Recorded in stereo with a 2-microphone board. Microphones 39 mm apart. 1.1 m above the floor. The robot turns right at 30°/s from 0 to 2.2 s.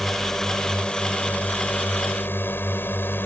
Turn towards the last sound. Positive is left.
turn(degrees=65)